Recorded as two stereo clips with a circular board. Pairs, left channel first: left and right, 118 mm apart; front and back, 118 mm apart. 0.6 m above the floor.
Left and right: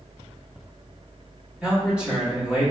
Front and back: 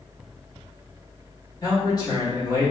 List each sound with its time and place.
1.6 s a man speaking: 20° right, 1.1 m